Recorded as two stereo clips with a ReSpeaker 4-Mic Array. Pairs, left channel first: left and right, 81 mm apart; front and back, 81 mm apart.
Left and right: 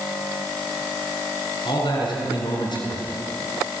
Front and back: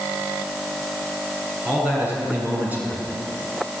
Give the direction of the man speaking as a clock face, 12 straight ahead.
8 o'clock.